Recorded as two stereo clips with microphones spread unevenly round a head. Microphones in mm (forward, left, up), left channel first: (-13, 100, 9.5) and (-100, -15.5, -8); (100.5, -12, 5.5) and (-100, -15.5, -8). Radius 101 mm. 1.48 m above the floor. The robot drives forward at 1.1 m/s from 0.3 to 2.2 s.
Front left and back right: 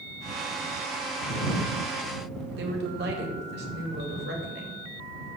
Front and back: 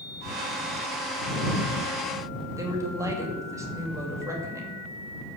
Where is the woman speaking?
105° right, 2.5 m.